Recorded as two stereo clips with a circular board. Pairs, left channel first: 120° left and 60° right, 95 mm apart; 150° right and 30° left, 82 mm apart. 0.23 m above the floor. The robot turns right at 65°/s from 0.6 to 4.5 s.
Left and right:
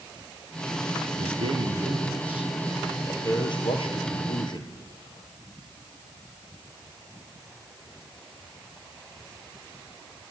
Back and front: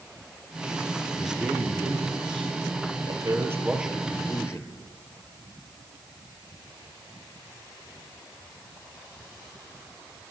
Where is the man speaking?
65° right, 5.5 m; by 4.7 s 155° left, 5.5 m.